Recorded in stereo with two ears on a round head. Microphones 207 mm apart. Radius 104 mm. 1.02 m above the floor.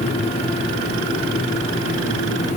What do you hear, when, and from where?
Only background noise.